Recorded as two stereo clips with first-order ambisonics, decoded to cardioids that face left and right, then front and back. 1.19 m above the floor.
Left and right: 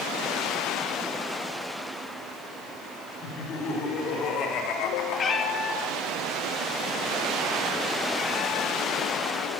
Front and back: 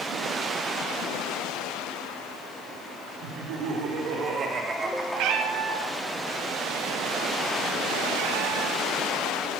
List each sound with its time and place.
3.2 s laughter: 150° left, 3.5 m; by 6.1 s 40° left, 2.5 m
5.1 s a cat meowing: 155° left, 0.8 m